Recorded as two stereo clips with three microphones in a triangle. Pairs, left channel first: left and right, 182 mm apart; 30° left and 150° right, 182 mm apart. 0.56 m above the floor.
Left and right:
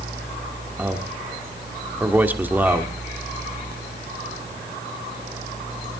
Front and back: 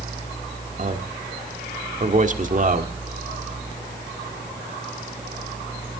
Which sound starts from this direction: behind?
A man speaking, at 0.8 s.